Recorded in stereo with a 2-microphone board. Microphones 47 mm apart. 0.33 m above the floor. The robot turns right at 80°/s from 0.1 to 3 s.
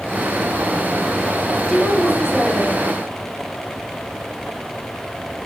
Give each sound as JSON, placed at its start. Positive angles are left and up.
{"t": 1.7, "sound": "a woman speaking", "side_deg": -5, "distance_m": 1.3}